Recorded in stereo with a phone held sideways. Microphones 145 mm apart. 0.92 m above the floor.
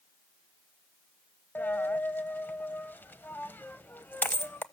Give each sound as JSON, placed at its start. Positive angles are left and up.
{"t": 1.6, "sound": "a dropped coin", "side_deg": 15, "distance_m": 0.8}